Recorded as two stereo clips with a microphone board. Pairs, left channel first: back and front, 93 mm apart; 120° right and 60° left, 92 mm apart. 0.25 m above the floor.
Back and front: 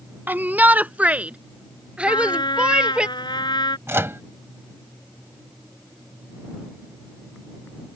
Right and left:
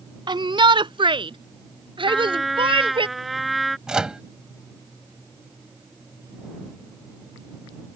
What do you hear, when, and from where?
0.3 s a shout: 65° left; by 3.1 s 80° left
2.1 s a trumpet: 150° left
3.9 s a microwave: 10° right